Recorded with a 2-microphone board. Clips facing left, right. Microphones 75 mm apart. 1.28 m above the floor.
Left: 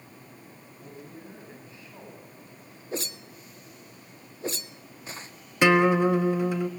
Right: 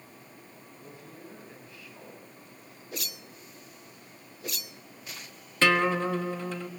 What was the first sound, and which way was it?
A man speaking, 25° left (ahead or behind).